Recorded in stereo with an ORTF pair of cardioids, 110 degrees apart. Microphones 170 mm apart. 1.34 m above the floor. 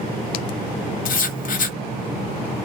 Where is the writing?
55° left, 0.6 m.